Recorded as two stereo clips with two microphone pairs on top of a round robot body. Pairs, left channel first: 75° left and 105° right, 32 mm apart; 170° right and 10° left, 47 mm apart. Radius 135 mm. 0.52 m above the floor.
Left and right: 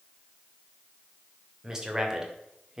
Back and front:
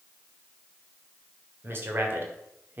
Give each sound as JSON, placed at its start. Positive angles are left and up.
{"t": 1.6, "sound": "a man speaking", "azimuth_deg": -30, "distance_m": 2.5}